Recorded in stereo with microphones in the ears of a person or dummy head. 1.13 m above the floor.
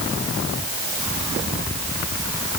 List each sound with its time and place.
Only background noise.